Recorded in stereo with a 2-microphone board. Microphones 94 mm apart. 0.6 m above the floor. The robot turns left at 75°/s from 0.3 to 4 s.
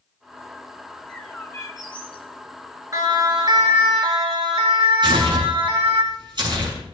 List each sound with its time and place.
0.9 s a bird: 175° right, 2.5 m; by 2.3 s 85° left, 2.5 m
2.9 s a siren: 35° right (ahead or behind), 2 m; by 6.0 s 75° right (ahead or behind), 5.5 m
5.0 s tearing paper: 55° right (ahead or behind), 7 m